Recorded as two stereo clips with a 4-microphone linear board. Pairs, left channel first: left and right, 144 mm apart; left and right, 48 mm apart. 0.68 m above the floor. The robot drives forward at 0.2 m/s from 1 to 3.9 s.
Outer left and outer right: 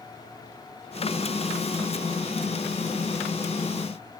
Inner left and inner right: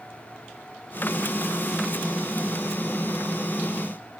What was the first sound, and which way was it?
Only background noise.